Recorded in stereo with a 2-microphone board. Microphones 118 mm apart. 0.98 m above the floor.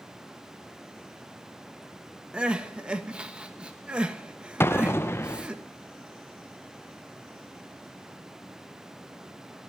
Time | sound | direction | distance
2.3 | crying | 10° right (ahead or behind) | 1.2 m
4.6 | an explosion | 20° left (ahead or behind) | 0.6 m